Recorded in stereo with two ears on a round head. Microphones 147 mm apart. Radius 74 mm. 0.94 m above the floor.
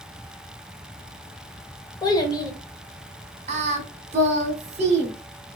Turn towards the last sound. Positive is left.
turn(degrees=-40)  # may be behind; listen again after turning